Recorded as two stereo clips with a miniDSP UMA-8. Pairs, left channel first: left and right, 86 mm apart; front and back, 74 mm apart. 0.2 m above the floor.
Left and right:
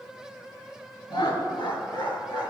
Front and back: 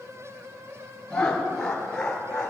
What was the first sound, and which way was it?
Laughter, 80° left.